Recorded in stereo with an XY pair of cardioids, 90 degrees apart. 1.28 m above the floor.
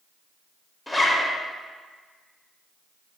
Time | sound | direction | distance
0.9 | a zipper | 20° left | 0.6 m